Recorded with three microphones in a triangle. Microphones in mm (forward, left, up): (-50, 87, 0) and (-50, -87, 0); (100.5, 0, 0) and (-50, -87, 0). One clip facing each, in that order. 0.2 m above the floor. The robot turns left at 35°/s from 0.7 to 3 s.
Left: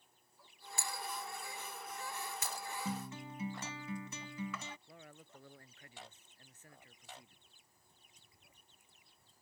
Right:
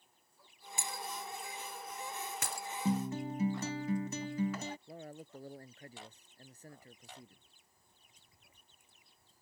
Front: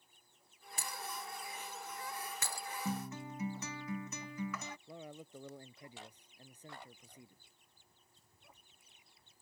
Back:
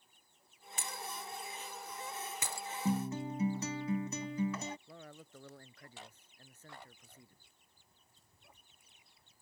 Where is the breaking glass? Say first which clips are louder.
Right 1 dB, even; 20° right; by 2.7 s 90° right.